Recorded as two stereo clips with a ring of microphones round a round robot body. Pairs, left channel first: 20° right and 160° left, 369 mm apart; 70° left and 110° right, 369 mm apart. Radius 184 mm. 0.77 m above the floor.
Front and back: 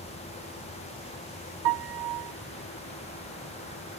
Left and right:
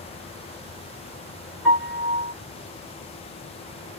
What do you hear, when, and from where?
1.6 s a piano: 160° left, 1.2 m